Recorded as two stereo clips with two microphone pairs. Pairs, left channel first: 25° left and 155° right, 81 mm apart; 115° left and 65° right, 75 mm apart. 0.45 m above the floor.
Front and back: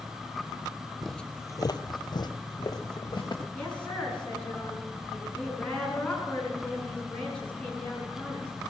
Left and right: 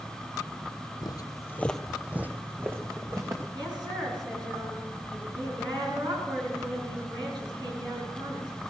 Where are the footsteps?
115° left, 1.0 m; by 3.4 s 15° right, 3 m.